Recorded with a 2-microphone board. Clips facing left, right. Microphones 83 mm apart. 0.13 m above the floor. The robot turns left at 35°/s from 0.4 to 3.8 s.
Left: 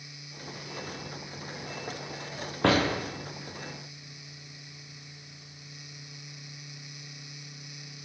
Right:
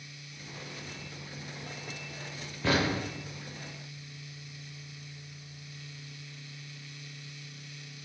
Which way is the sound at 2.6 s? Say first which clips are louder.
Left 4 dB; 60° left (ahead or behind).